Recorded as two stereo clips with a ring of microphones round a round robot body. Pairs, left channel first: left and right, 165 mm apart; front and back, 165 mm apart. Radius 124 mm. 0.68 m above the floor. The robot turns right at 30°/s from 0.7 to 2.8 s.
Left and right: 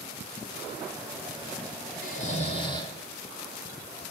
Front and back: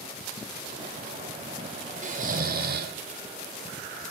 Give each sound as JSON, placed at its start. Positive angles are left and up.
{"t": 2.0, "sound": "snoring", "azimuth_deg": 140, "distance_m": 2.0}